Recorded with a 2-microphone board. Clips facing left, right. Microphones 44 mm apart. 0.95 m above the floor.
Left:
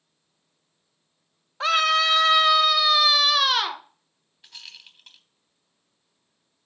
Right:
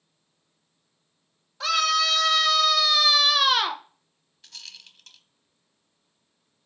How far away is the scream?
About 1.0 m.